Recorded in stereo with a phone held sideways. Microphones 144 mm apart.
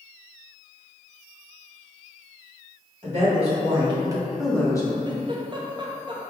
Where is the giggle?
30° right (ahead or behind), 0.5 m.